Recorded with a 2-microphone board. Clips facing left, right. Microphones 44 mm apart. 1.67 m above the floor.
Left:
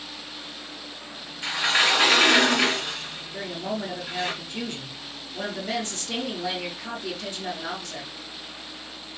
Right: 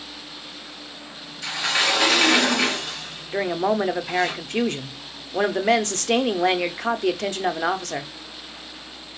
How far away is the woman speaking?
About 0.5 m.